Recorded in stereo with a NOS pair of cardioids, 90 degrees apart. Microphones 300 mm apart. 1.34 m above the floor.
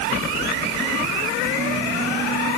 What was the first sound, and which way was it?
Only background noise.